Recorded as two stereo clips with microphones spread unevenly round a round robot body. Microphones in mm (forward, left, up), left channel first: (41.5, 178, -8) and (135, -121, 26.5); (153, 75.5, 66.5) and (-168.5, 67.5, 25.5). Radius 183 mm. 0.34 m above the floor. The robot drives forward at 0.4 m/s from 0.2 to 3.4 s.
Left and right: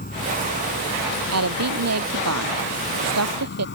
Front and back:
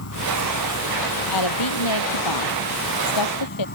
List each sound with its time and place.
0.0 s an insect: 45° left; by 3.8 s 55° left
1.3 s a woman speaking: 35° right